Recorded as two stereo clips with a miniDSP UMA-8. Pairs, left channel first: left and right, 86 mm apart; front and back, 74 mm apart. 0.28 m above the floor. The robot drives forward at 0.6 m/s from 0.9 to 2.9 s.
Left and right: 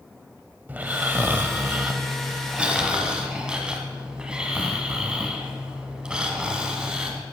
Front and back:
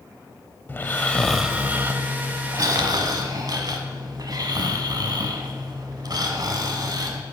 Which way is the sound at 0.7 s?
40° right.